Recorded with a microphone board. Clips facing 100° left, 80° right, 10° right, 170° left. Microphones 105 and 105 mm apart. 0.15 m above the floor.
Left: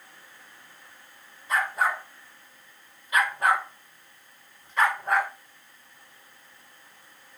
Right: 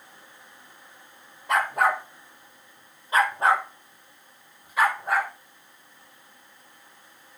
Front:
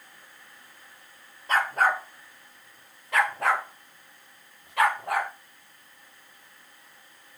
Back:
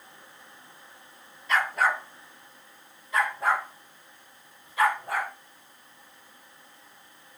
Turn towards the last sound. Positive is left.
turn(degrees=10)